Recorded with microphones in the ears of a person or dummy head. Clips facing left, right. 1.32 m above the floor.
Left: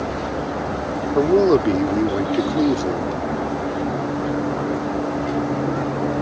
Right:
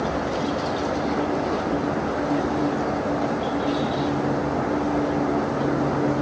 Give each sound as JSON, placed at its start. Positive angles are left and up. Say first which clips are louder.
{"t": 1.1, "sound": "a man speaking", "louder": "left 9 dB", "side_deg": 90}